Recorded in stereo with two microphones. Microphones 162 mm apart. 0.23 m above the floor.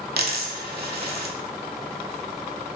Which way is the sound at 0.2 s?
80° right.